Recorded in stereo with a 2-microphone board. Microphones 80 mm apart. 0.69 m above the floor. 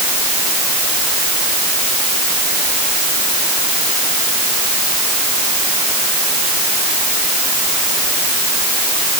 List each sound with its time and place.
Only background noise.